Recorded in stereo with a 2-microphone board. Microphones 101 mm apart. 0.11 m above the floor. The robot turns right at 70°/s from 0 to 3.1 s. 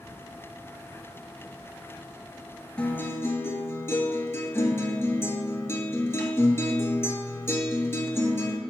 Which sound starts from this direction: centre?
A guitar, at 2.8 s.